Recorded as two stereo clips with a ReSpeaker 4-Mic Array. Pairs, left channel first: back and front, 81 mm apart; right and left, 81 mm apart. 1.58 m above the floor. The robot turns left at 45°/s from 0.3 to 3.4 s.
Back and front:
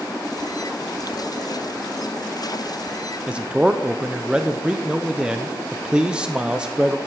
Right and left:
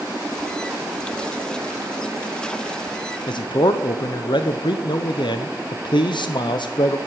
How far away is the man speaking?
About 0.9 m.